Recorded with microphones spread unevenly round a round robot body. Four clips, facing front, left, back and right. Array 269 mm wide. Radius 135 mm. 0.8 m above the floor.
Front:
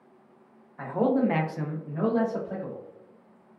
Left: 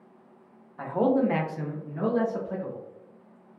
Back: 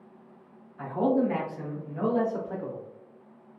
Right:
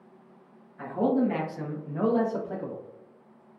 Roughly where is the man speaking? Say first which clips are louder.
Left 2 dB, front 1 dB; ahead left.